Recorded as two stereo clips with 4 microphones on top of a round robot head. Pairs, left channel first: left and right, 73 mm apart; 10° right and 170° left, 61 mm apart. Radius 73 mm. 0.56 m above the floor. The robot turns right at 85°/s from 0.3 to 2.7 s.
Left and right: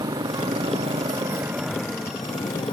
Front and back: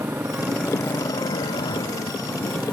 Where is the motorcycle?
125° right; by 2.7 s 80° left.